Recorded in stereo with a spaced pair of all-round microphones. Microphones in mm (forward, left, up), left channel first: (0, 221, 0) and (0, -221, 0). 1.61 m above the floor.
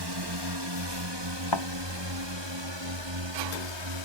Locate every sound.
0.0 s a drone: 60° right (ahead or behind); by 4.0 s 75° right (ahead or behind)
1.5 s a thud: 65° left (ahead or behind)